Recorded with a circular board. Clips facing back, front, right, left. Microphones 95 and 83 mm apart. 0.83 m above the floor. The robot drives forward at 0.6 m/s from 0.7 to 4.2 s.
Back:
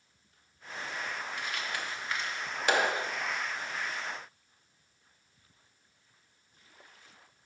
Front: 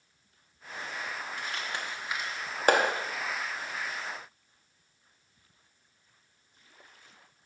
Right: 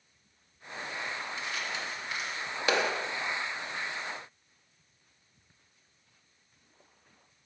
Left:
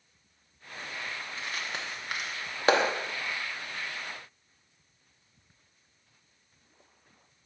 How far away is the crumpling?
About 1.1 m.